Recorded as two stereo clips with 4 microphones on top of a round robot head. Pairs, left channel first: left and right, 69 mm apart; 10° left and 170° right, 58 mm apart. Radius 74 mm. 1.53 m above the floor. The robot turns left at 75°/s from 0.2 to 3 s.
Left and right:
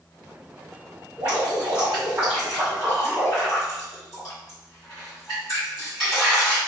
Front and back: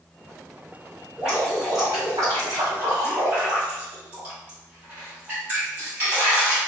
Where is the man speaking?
No man speaking in this recording.